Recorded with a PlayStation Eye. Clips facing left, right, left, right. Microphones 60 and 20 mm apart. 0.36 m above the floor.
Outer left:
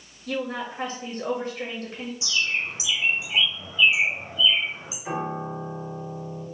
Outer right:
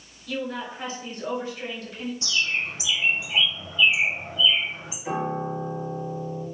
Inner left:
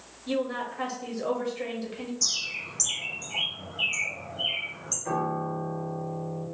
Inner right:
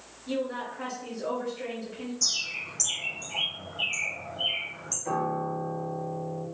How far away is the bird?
About 1.7 m.